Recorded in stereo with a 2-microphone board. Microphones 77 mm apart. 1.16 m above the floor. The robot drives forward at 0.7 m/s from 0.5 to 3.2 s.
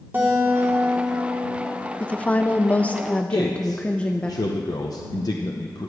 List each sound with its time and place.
0.1 s a guitar: 25° right (ahead or behind), 2.5 m; by 1.9 s 40° right (ahead or behind), 1.9 m
2.0 s a woman speaking: 15° left (ahead or behind), 0.6 m
3.3 s a man speaking: 55° left (ahead or behind), 0.8 m